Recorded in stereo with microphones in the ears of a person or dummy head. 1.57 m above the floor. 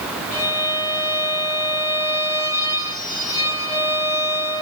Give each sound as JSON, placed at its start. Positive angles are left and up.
{"t": 0.3, "sound": "a violin", "side_deg": 45, "distance_m": 3.5}